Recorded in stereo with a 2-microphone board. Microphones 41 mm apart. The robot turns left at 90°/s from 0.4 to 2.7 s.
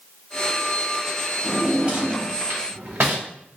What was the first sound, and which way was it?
A drawer, 10° left (ahead or behind).